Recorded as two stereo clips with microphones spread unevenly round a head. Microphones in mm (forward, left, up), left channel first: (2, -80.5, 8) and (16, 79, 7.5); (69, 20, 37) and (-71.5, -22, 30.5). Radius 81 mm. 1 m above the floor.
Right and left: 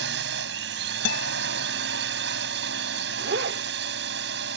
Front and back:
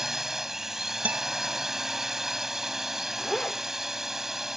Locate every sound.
0.0 s a drone: 110° left
1.1 s a guitar: 80° right
3.2 s a zipper: 100° left